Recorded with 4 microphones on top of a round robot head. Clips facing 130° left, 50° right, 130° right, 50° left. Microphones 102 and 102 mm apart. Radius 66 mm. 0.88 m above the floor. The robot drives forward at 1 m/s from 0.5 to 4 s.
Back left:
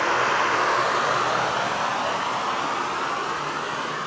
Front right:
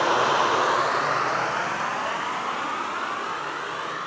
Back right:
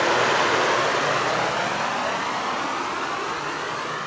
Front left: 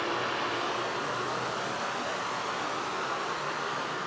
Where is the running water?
120° right, 0.9 m; by 4.1 s 170° right, 4 m.